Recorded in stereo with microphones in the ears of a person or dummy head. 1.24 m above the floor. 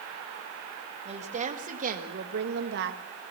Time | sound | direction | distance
1.1 | a woman speaking | 25° right (ahead or behind) | 1.7 m